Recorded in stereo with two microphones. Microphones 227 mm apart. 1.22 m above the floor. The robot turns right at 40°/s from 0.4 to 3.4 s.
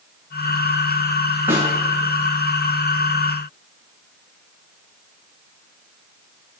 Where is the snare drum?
10° right (ahead or behind), 5.5 m; by 1.7 s 15° right (ahead or behind), 5.5 m.